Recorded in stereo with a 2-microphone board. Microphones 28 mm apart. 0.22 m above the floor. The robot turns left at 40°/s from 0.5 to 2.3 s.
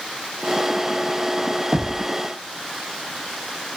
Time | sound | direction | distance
1.7 | knocking | 35° right (ahead or behind) | ?